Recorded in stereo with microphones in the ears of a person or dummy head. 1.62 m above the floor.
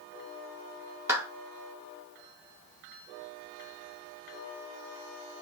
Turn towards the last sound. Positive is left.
turn(degrees=-10)  # may be behind; listen again after turning